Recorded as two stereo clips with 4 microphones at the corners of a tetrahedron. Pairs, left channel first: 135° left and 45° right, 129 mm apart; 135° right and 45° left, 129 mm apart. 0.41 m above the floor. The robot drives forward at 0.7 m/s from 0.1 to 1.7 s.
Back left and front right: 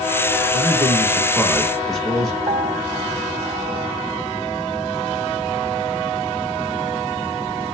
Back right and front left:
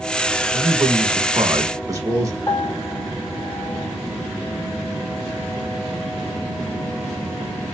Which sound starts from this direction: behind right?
A piano, at 2.5 s.